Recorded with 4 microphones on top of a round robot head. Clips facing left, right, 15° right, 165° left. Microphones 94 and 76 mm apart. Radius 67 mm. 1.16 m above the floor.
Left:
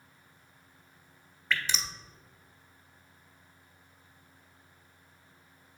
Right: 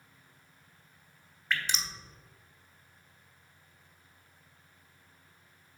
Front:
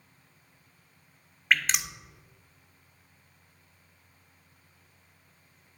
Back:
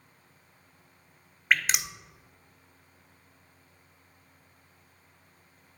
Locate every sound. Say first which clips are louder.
1.5 s dripping: left 1 dB, even; 85° left, 1.1 m